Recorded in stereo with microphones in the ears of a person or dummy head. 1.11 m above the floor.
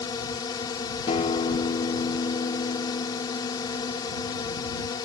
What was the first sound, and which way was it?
A drone, 25° left (ahead or behind).